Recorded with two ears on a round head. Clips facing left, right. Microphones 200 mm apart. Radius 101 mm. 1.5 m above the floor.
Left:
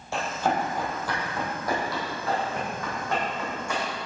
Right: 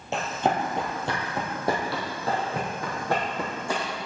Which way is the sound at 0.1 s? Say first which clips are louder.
Right 1 dB; 20° right (ahead or behind).